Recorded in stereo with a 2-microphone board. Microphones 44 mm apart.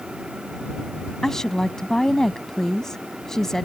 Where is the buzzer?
I don't hear a buzzer.